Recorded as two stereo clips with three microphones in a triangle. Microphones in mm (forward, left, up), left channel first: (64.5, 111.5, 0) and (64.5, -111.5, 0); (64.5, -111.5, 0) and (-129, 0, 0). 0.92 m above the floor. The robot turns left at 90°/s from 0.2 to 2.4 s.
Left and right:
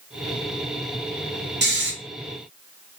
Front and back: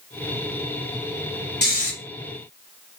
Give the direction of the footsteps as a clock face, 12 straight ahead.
I don't hear footsteps.